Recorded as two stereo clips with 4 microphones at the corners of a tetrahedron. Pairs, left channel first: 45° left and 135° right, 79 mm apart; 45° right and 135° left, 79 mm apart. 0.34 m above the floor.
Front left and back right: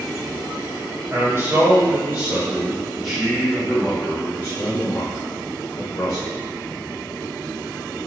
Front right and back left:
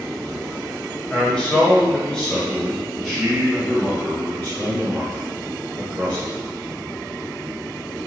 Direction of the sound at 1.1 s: 105° right.